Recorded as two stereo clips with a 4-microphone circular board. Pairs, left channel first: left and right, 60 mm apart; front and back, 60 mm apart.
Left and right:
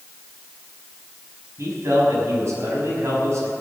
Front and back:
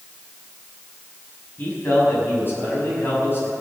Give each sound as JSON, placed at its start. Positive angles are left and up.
{"t": 1.6, "sound": "a man speaking", "azimuth_deg": -55, "distance_m": 5.5}